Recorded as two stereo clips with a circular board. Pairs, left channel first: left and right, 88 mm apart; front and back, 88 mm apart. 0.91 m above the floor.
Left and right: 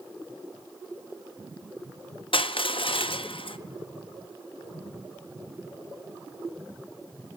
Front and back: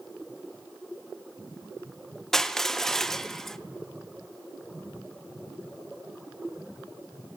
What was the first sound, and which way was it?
Crushing, 85° left.